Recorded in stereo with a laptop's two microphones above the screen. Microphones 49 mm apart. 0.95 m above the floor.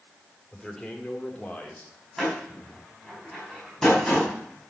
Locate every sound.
0.5 s a man speaking: 10° left (ahead or behind), 3.5 m; by 1.9 s 25° left (ahead or behind), 3 m
2.2 s a door slam: 15° left (ahead or behind), 4.5 m